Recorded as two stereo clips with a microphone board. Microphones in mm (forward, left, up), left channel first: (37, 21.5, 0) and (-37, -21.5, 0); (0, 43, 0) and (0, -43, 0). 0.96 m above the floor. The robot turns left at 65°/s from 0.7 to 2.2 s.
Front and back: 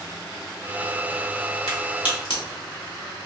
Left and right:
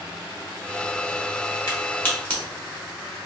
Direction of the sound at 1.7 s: 50° left.